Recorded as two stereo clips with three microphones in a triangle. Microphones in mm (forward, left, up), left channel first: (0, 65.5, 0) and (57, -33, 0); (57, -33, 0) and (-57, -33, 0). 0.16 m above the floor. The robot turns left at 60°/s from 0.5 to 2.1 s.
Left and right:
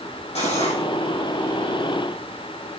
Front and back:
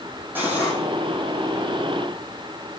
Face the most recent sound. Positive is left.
turn(degrees=10)